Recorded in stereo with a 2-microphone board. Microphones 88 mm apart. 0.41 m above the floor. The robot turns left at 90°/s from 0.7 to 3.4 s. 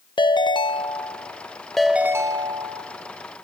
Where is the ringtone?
100° left, 0.6 m; by 2.9 s 95° right, 0.6 m.